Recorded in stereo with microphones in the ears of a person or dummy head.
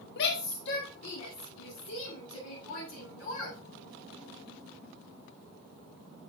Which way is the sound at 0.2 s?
65° left (ahead or behind).